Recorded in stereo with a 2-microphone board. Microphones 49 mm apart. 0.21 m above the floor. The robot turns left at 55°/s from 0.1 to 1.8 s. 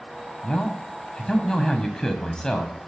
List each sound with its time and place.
0.4 s a man speaking: 15° left (ahead or behind), 0.9 m